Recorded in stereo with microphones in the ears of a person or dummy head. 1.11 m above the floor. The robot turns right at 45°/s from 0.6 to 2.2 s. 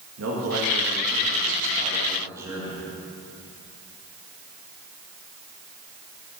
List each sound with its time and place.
0.2 s a man speaking: 85° right, 1.8 m; by 2.9 s 15° right, 1.8 m